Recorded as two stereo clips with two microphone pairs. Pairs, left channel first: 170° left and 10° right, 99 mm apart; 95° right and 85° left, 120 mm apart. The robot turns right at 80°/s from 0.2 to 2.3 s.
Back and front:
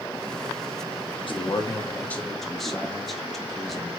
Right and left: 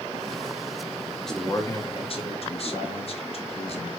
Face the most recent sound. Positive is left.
turn(degrees=-100)